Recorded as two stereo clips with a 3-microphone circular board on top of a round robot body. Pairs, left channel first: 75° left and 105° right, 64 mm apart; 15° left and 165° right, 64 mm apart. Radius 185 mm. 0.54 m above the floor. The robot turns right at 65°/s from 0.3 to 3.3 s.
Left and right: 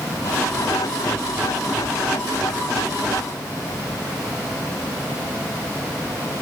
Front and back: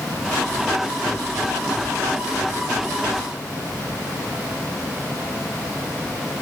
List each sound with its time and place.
Only background noise.